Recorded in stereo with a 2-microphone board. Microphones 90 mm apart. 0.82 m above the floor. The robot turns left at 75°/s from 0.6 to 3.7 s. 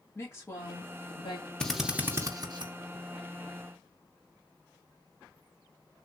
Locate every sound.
0.1 s a woman speaking: 150° left, 1.6 m; by 1.5 s 80° left, 1.6 m
1.6 s a drill: 10° left (ahead or behind), 0.6 m; by 2.7 s 60° right (ahead or behind), 0.6 m